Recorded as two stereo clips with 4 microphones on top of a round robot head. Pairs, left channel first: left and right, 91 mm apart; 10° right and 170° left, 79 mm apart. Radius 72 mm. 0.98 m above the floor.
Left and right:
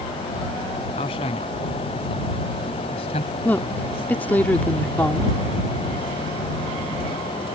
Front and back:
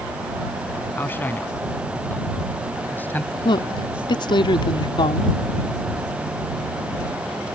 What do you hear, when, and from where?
0.9 s a man speaking: 55° left; by 3.4 s 60° left
3.5 s a woman speaking: 15° left